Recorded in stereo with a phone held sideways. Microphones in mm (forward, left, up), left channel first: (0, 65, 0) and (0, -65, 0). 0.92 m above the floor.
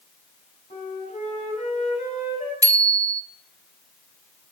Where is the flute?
55° left (ahead or behind), 7.5 m.